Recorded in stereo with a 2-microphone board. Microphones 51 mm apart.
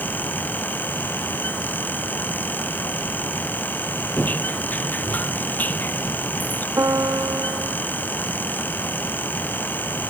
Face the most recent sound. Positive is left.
turn(degrees=-85)